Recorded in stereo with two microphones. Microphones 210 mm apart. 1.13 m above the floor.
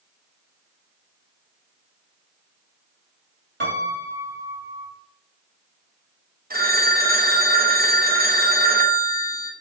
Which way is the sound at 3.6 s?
60° right (ahead or behind).